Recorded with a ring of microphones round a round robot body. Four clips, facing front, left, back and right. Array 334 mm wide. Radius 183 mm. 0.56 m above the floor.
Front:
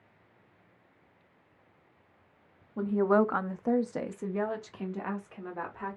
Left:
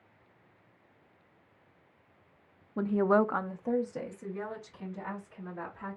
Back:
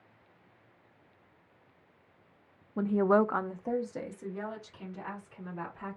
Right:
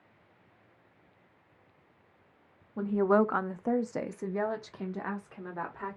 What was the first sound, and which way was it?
A woman speaking, 125° left.